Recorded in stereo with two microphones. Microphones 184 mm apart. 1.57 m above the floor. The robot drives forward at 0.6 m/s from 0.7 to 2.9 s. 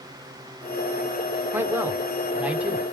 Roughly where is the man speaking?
Centre.